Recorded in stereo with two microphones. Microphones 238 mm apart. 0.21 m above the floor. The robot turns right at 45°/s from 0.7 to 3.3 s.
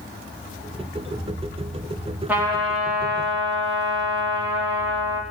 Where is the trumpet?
175° right, 4.5 m; by 5.2 s 130° right, 4.5 m.